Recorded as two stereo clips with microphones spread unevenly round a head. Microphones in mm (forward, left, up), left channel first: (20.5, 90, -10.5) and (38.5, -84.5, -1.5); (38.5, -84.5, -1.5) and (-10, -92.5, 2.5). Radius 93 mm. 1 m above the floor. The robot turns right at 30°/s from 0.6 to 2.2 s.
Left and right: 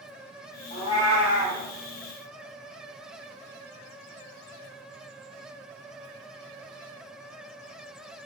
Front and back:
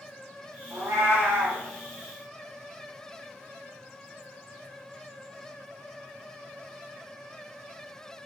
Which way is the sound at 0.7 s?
155° left.